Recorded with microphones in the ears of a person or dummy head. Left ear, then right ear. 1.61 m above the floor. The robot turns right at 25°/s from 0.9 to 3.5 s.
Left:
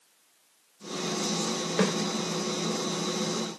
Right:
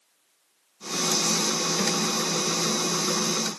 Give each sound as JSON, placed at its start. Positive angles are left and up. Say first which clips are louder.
{"t": 1.8, "sound": "a snare drum", "louder": "left 4 dB", "side_deg": 35, "distance_m": 2.0}